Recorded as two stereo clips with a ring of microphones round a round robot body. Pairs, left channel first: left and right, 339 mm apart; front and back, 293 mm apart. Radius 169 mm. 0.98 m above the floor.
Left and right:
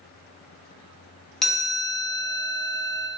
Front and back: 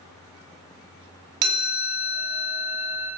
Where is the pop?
I don't hear a pop.